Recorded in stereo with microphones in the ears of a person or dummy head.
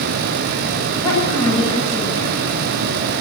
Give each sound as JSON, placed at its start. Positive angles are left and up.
{"t": 1.0, "sound": "a woman speaking", "side_deg": 20, "distance_m": 8.5}